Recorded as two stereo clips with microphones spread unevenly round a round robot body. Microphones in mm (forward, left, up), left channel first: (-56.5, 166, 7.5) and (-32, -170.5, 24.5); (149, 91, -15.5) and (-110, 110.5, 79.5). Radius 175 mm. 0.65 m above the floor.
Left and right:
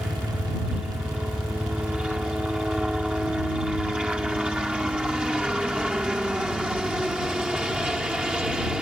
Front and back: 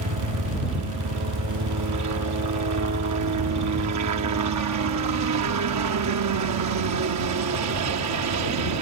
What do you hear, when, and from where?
0.0 s a helicopter: 175° right